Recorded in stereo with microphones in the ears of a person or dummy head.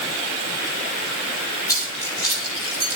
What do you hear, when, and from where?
1.7 s keys jangling: 20° left (ahead or behind), 4.5 m; by 3.0 s 30° left (ahead or behind), 4.5 m